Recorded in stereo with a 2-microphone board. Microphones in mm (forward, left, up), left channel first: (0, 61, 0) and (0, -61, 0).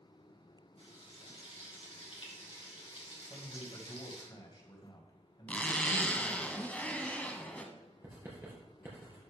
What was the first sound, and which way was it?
Frying, 50° left (ahead or behind).